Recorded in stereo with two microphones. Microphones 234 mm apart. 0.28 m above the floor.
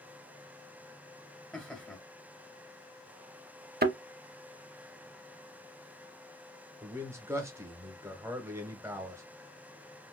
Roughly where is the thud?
Right.